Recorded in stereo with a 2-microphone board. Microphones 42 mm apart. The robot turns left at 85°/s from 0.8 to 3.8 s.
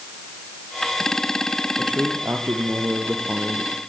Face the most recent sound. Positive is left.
turn(degrees=170)